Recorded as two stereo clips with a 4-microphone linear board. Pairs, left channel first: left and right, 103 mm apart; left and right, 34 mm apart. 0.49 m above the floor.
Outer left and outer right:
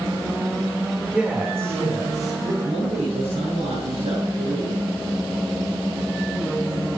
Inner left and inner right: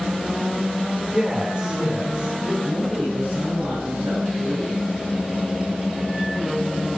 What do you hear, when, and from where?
1.1 s a man speaking: 5° right (ahead or behind), 1.7 m; by 2.5 s 40° right (ahead or behind), 2.5 m
2.6 s a man speaking: 60° right (ahead or behind), 6.5 m